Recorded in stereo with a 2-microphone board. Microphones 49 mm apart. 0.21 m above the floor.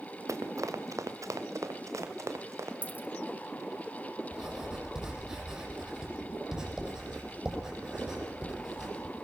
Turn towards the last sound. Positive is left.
turn(degrees=-15)  # may be behind; listen again after turning